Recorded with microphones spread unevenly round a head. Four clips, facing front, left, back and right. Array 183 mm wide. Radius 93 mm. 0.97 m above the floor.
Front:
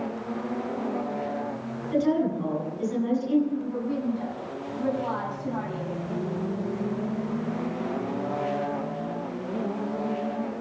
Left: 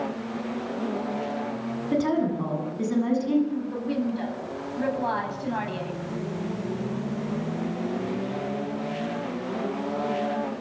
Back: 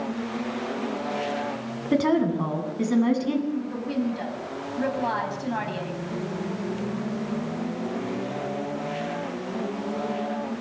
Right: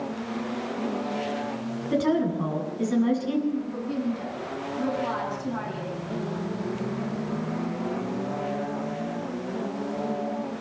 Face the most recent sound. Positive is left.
turn(degrees=155)